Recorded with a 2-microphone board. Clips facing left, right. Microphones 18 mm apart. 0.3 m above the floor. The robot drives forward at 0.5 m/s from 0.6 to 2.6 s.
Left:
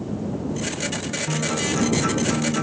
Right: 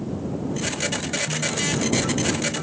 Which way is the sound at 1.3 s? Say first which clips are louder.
Left 4 dB; 35° left (ahead or behind).